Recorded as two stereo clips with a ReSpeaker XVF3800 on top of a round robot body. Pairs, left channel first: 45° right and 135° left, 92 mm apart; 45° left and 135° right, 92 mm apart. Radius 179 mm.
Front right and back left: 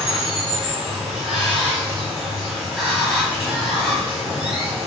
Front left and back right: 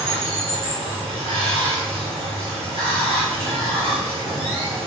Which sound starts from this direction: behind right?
Running water, at 0.0 s.